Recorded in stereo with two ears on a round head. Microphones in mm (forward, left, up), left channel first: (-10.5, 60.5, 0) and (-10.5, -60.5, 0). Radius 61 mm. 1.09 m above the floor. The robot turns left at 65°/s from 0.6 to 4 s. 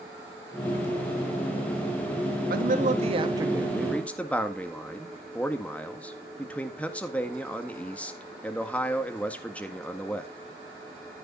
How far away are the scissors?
No scissors in this recording.